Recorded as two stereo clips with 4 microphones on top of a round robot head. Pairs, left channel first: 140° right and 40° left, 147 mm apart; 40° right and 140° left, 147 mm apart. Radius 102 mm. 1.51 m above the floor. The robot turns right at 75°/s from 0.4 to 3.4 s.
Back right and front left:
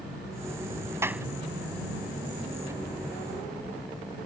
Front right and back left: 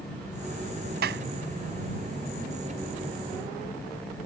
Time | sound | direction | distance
1.0 | a clap | 115° left | ?